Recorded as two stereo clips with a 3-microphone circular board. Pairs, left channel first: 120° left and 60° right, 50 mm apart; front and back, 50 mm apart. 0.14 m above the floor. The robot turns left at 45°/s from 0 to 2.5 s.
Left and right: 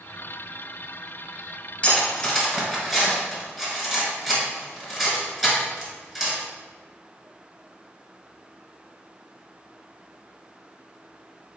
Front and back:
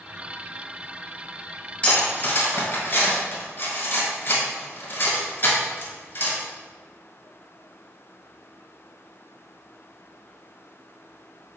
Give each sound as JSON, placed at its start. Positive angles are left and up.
{"t": 1.8, "sound": "cutlery clinking", "azimuth_deg": 65, "distance_m": 1.3}